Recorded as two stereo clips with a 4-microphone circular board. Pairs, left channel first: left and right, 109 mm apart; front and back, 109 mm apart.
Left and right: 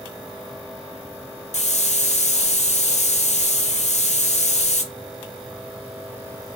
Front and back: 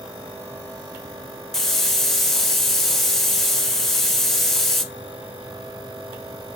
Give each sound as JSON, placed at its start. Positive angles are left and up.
{"t": 1.5, "sound": "a hiss", "azimuth_deg": 85, "distance_m": 0.6}